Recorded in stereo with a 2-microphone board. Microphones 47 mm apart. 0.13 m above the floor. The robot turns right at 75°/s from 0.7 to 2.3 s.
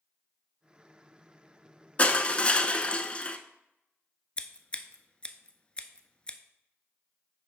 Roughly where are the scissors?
Left.